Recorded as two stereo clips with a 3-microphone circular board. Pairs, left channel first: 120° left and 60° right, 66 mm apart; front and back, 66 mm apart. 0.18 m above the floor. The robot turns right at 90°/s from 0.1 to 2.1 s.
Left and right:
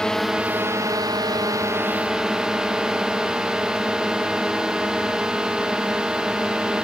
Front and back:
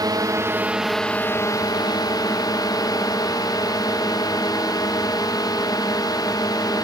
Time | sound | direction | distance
0.0 | a drone | 160° right | ?